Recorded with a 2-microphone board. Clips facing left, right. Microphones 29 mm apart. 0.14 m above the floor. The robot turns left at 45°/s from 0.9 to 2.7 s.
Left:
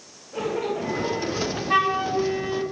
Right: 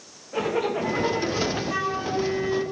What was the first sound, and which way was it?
A zipper, 155° right.